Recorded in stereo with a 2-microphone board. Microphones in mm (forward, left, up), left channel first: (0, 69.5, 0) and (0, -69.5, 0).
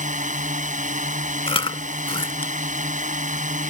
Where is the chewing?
40° left (ahead or behind).